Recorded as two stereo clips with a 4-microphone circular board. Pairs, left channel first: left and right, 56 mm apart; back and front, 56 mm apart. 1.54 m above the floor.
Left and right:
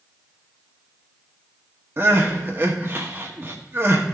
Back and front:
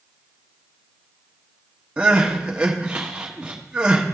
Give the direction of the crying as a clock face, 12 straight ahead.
2 o'clock.